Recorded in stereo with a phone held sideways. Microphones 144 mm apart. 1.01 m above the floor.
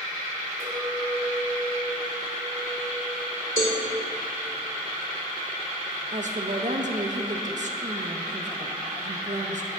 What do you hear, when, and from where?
0.6 s a clink: 55° right (ahead or behind), 2.5 m
3.6 s a cowbell: 75° left (ahead or behind), 3 m
6.1 s a woman speaking: 60° right (ahead or behind), 0.8 m